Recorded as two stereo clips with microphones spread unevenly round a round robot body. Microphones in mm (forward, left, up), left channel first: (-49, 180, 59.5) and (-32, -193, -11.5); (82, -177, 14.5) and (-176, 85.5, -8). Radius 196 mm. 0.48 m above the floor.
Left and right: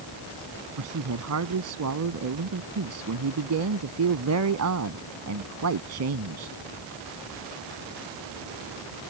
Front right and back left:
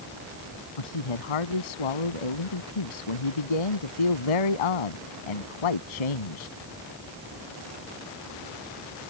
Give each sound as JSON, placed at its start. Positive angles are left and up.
{"t": 0.8, "sound": "a man speaking", "azimuth_deg": -35}